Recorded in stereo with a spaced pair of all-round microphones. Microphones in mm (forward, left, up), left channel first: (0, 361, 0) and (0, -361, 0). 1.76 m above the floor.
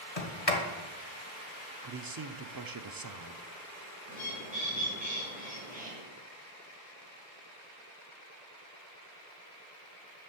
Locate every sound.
0.2 s a sliding door: 50° left (ahead or behind), 1.7 m
1.8 s a man speaking: 30° right (ahead or behind), 0.6 m
4.1 s a bird: 10° right (ahead or behind), 4 m